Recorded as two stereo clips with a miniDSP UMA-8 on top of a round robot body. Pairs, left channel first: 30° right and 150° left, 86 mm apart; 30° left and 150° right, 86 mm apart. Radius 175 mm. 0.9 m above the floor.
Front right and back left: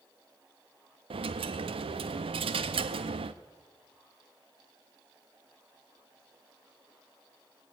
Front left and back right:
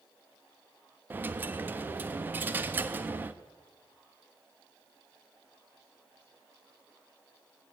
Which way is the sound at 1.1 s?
140° left.